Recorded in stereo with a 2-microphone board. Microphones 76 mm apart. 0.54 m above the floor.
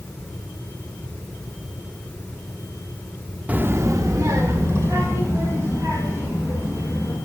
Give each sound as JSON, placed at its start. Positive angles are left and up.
{"t": 3.5, "sound": "a child speaking", "side_deg": -20, "distance_m": 0.6}